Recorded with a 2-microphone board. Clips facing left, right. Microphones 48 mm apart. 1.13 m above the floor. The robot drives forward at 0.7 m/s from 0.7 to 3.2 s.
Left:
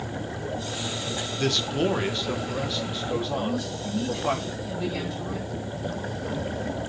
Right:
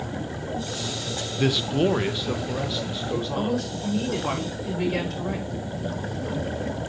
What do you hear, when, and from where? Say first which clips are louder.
1.4 s a man speaking: right 3 dB; 10° right (ahead or behind), 0.6 m; by 4.3 s 5° right (ahead or behind), 1.8 m
3.4 s a woman speaking: right 2 dB; 75° right (ahead or behind), 4 m